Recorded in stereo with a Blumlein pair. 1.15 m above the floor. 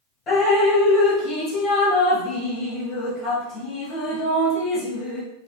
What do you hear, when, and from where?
0.3 s dripping: 30° left, 1.3 m